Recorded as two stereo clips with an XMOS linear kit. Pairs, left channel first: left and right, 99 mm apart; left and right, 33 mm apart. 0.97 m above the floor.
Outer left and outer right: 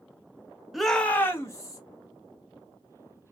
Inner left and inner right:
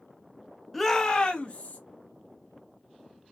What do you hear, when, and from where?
0.7 s a shout: centre (ahead or behind), 0.6 m; by 1.8 s 35° left (ahead or behind), 1.2 m